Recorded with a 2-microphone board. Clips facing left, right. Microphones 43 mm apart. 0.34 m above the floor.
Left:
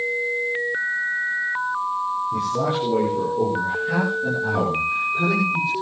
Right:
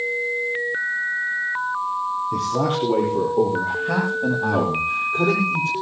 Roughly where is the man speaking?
Right.